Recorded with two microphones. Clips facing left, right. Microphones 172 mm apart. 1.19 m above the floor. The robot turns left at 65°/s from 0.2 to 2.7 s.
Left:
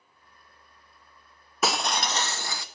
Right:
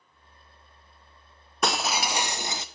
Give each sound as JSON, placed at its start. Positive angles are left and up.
{"t": 1.6, "sound": "breaking glass", "side_deg": 5, "distance_m": 0.5}